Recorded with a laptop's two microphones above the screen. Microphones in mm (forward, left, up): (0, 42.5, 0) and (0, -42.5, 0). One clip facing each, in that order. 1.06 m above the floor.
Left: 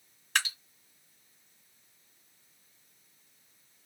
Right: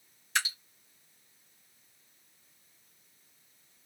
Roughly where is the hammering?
No hammering in this recording.